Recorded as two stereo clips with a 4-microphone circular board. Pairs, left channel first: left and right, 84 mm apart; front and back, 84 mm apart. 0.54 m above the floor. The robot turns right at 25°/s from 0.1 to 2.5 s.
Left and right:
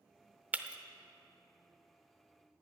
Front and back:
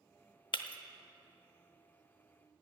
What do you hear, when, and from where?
0.5 s breaking glass: 20° right, 0.8 m; by 0.8 s 10° right, 0.8 m